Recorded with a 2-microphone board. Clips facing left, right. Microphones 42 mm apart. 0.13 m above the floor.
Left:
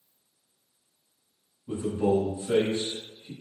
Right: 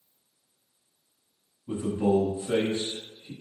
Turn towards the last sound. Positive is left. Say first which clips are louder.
# even
turn(degrees=-15)  # may be behind; listen again after turning